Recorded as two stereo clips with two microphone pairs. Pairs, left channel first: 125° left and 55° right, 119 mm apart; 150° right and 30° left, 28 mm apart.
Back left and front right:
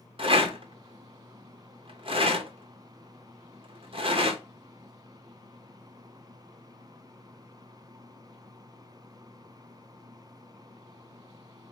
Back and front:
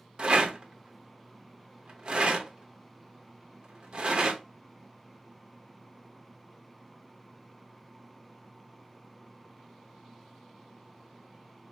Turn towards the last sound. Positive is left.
turn(degrees=-15)